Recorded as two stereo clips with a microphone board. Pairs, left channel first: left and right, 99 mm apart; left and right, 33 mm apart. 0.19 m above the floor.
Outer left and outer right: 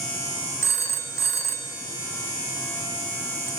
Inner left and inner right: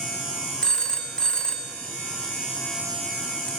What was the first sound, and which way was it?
A phone ringing, 30° left (ahead or behind).